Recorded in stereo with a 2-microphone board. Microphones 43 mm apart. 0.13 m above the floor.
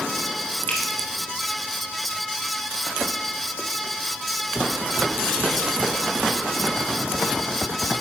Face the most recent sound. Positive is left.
turn(degrees=50)  # may be behind; listen again after turning